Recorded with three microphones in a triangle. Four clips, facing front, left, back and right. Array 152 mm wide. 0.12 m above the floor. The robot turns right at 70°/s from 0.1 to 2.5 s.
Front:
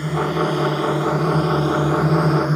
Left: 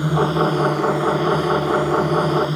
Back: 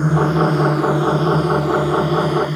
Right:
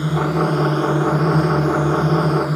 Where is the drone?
Straight behind; by 2.6 s 15° right.